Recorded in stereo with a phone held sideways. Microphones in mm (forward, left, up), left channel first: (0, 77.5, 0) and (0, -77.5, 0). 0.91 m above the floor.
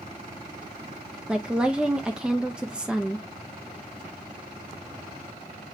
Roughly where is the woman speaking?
Centre.